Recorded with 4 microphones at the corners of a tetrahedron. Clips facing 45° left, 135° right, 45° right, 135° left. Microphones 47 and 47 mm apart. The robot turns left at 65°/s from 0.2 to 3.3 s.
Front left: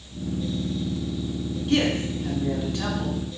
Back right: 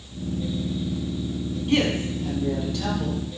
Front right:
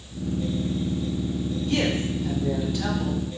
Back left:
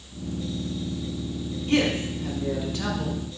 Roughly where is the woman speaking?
Behind.